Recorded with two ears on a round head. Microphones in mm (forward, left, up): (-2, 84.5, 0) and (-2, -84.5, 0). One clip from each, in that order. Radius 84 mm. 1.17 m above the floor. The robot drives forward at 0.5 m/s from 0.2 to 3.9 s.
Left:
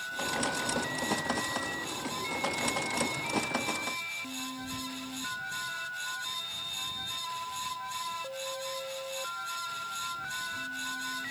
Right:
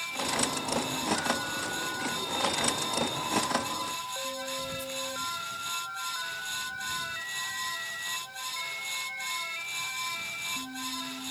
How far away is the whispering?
About 0.6 m.